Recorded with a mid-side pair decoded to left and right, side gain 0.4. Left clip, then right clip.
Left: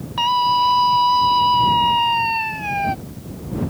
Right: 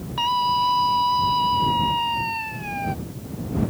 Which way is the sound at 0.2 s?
30° left.